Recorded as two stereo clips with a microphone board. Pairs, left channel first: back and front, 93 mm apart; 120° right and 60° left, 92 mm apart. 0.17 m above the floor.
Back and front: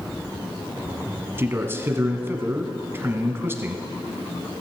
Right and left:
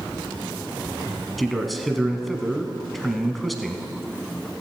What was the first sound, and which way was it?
A man speaking, 30° right.